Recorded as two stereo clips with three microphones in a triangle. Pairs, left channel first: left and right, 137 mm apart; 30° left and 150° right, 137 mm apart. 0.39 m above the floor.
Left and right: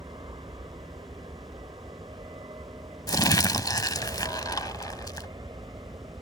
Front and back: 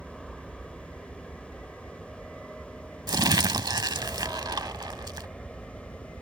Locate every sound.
0.0 s an aircraft: 60° right; by 6.2 s 55° right
3.1 s crumpling: 155° left